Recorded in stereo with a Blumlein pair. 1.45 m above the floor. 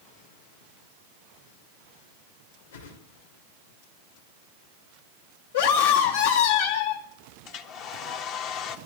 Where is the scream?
60° left, 2.5 m.